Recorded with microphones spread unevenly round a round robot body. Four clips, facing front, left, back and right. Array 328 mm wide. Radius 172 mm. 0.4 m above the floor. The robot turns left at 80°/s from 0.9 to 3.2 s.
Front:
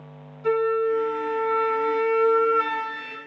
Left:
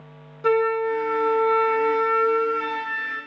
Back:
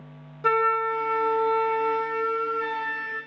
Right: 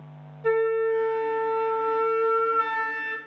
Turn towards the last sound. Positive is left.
turn(degrees=-45)